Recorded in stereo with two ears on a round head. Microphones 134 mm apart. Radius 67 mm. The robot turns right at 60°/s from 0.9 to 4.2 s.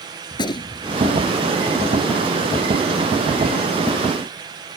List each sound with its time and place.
0.3 s a gunshot: 30° left (ahead or behind); by 1.0 s 25° left (ahead or behind)